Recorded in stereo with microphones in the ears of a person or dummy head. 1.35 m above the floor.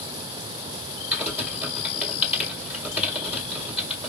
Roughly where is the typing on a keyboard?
Centre.